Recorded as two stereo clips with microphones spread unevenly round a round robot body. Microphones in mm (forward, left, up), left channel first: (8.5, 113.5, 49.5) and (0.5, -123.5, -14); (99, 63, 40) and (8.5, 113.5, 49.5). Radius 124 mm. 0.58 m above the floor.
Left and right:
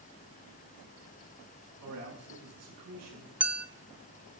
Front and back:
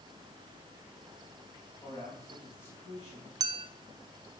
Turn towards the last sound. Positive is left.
turn(degrees=-160)